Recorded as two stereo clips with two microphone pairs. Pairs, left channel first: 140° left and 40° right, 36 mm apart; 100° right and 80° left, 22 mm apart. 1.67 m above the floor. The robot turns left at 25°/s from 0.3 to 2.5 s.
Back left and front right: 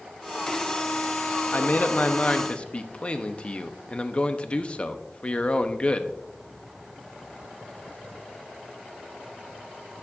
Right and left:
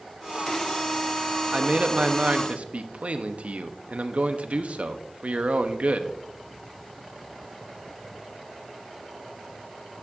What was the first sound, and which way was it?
A man speaking, 110° left.